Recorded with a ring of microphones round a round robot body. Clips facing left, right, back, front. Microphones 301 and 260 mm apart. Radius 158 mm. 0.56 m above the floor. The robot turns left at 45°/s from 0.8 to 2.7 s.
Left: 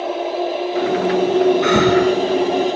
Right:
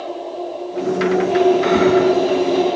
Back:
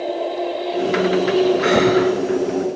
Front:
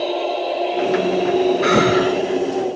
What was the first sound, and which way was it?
Breathing, 80° left.